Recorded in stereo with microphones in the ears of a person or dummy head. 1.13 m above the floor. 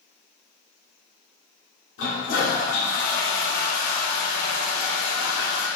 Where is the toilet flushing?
60° left (ahead or behind), 1.2 m.